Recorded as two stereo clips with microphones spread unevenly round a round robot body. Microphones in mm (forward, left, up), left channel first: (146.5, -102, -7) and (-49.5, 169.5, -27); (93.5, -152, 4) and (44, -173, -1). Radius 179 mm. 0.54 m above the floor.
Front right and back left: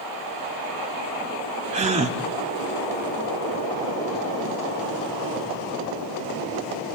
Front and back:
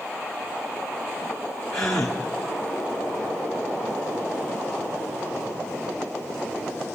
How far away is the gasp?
About 1.3 m.